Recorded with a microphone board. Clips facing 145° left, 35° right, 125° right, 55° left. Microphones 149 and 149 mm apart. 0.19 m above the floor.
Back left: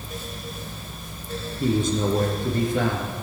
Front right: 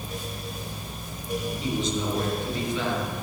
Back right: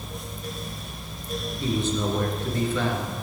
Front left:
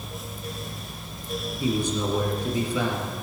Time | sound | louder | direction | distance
1.6 | a man speaking | back left 9 dB, even | 130° left | 3 m